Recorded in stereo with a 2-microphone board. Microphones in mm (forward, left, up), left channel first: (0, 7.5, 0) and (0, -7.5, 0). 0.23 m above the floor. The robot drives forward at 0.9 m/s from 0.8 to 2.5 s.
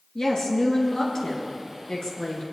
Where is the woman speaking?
65° left (ahead or behind), 3 m.